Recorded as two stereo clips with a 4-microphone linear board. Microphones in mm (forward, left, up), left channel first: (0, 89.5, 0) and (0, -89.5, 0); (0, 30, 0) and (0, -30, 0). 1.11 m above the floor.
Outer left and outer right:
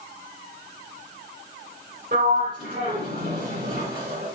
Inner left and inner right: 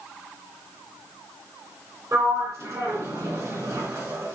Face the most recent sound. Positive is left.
turn(degrees=-65)  # may be behind; listen again after turning